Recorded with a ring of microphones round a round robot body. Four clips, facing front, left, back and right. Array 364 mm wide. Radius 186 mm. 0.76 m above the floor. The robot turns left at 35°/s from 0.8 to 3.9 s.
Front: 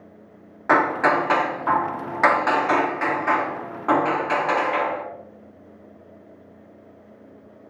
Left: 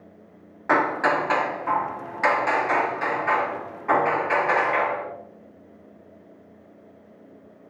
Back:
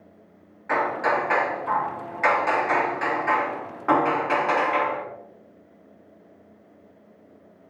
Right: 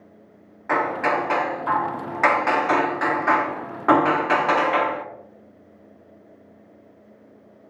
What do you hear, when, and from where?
0.7 s hammering: 20° left, 1.4 m; by 5.0 s 85° right, 1.4 m